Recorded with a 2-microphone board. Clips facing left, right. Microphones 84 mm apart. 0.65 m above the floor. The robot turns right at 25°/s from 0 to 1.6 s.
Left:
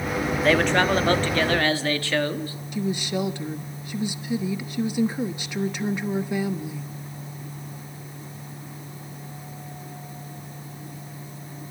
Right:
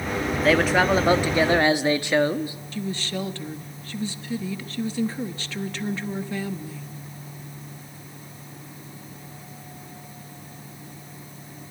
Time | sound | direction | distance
0.4 | a man speaking | straight behind | 1.1 m
2.7 | a woman speaking | 15° left (ahead or behind) | 0.9 m